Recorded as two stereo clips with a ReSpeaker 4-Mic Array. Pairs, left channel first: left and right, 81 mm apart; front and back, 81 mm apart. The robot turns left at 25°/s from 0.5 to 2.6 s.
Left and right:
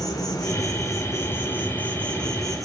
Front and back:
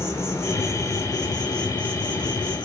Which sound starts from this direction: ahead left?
An insect, at 0.0 s.